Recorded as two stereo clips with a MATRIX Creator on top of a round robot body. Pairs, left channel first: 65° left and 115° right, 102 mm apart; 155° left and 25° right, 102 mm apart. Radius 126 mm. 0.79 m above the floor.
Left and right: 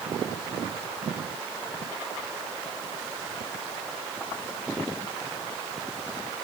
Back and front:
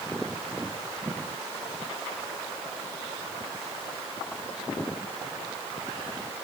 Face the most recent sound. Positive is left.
No sound to turn to.